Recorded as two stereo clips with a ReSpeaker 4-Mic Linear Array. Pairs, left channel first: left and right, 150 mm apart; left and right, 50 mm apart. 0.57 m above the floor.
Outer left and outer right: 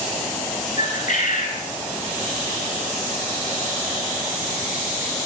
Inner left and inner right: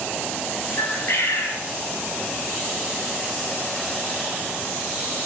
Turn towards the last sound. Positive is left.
turn(degrees=60)  # may be behind; listen again after turning